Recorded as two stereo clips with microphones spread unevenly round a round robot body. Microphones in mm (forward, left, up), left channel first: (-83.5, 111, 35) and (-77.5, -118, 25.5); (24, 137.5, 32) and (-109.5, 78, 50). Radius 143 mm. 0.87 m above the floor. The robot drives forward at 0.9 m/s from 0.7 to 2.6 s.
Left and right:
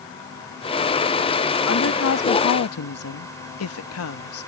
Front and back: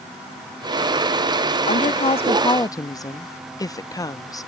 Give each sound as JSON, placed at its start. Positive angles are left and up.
{"t": 1.7, "sound": "a woman speaking", "azimuth_deg": 50}